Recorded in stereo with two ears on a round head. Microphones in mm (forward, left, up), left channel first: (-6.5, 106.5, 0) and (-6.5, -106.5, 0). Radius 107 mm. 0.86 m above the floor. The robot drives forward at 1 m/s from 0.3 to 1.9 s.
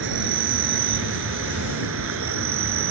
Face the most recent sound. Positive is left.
turn(degrees=-55)  # may be behind; listen again after turning